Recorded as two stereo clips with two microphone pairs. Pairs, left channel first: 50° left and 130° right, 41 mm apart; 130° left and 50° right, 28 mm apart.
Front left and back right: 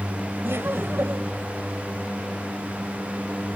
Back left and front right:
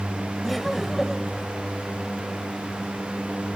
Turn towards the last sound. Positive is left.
turn(degrees=-130)